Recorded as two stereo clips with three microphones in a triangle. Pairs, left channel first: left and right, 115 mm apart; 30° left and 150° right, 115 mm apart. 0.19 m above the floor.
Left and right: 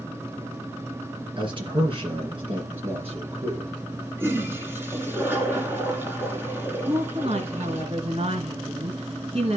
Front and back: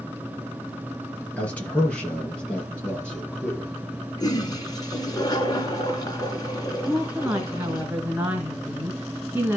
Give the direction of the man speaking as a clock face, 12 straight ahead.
2 o'clock.